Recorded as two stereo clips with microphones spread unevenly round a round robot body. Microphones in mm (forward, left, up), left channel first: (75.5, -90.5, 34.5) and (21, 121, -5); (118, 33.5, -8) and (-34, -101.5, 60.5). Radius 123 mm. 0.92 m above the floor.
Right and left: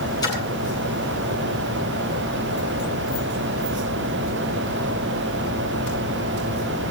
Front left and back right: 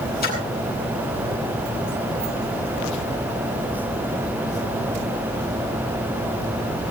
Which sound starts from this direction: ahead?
A splash, at 0.2 s.